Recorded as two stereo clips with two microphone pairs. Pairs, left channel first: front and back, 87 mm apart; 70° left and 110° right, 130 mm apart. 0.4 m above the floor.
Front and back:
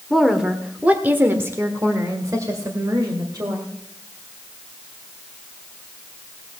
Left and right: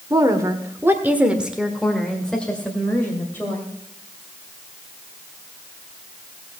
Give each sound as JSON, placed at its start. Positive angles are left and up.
{"t": 0.1, "sound": "a woman speaking", "azimuth_deg": -90, "distance_m": 1.5}